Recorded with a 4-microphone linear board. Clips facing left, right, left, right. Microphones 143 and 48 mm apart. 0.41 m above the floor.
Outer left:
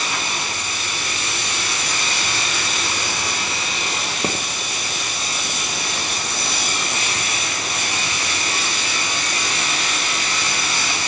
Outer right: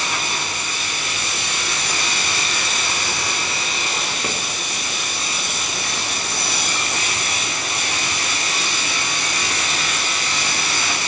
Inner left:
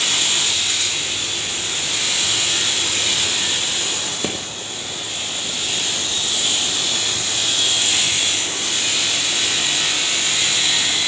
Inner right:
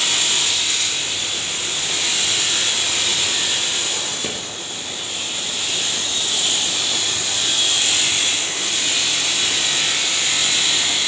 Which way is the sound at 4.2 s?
30° left (ahead or behind).